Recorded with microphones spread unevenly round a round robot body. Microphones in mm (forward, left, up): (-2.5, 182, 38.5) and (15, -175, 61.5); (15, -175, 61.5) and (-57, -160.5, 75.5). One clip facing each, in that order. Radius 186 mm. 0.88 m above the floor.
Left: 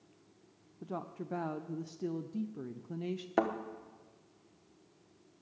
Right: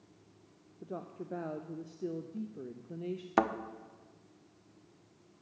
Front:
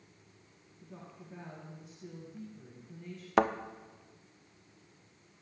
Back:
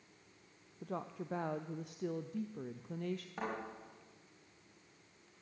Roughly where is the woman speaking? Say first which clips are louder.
Left 1 dB, back 9 dB; behind left.